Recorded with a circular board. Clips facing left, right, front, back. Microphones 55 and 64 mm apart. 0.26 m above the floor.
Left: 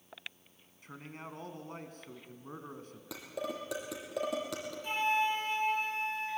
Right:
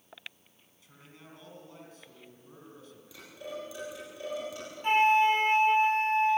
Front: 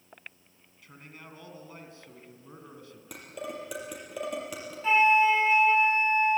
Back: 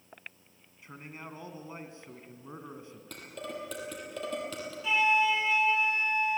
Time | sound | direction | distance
0.8 | a man speaking | 115° left | 2.5 m
3.1 | dishes clattering | 75° left | 5.5 m
4.8 | a flute | 55° right | 1.1 m